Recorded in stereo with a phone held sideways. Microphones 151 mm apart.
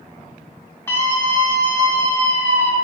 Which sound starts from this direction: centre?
A scream, at 0.9 s.